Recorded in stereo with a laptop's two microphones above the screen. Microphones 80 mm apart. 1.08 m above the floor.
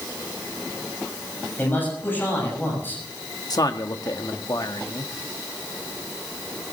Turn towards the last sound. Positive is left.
turn(degrees=55)  # may be behind; listen again after turning